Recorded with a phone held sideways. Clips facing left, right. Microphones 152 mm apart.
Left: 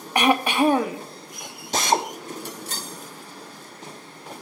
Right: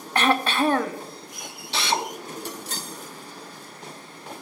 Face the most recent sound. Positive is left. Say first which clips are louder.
# left 4 dB
turn(degrees=45)  # may be behind; listen again after turning